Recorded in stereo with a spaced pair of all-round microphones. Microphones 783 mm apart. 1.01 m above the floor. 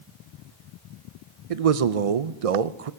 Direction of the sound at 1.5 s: 50° right (ahead or behind).